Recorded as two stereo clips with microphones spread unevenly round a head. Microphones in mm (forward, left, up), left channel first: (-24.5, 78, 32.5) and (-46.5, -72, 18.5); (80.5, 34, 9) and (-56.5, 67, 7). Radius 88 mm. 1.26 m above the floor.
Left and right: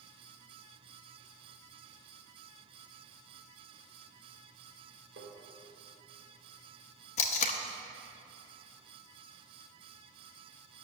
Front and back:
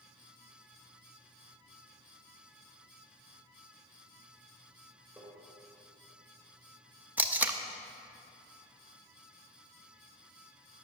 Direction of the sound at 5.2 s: 110° right.